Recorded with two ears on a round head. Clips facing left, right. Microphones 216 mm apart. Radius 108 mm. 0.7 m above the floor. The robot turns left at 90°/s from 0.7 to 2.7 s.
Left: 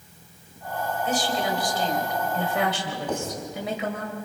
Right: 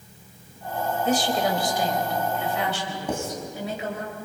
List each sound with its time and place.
1.1 s a woman speaking: 100° right, 3.5 m; by 4.1 s 110° left, 3.5 m
3.1 s writing: 10° right (ahead or behind), 5 m